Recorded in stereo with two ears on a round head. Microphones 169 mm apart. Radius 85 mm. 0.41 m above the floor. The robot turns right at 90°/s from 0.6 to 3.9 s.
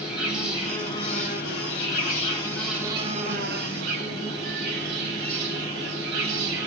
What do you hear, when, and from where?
0.0 s an insect: 5° right, 3.5 m; by 6.7 s 70° right, 3.5 m